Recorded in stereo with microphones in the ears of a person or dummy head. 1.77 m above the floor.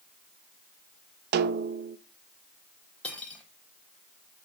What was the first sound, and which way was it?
A snare drum, 55° right (ahead or behind).